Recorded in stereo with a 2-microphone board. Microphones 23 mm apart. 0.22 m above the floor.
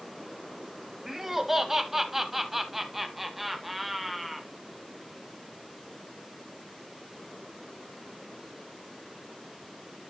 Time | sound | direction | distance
1.1 | laughter | 15° right (ahead or behind) | 1.3 m